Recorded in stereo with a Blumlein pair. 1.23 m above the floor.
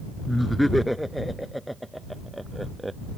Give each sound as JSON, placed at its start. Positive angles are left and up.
{"t": 0.3, "sound": "laughter", "azimuth_deg": 0}